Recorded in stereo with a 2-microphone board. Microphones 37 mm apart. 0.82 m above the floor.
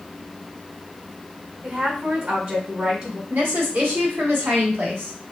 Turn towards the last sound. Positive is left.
turn(degrees=-65)  # may be behind; listen again after turning